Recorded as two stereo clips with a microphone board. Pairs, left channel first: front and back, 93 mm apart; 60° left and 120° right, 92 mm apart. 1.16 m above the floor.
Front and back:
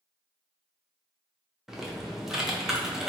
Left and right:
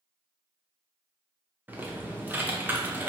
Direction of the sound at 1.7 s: 105° right.